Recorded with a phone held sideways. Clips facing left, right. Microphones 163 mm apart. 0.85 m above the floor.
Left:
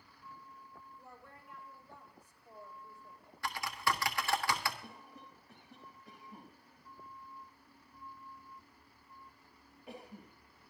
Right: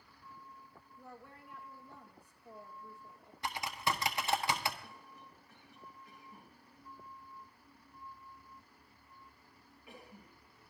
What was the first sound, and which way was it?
A woman speaking, 65° right (ahead or behind).